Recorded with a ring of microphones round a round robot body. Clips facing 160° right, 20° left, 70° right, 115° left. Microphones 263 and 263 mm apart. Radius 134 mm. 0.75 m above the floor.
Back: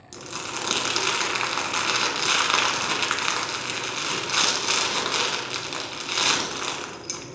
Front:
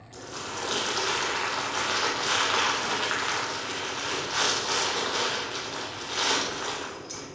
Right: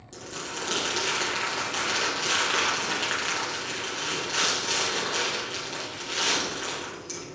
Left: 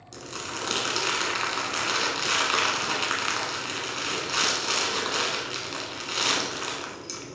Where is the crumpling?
175° right, 1.1 m.